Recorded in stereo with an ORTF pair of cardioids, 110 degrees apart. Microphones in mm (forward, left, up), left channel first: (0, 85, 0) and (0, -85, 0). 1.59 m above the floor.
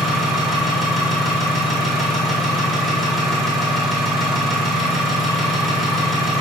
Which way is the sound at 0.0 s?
Straight ahead.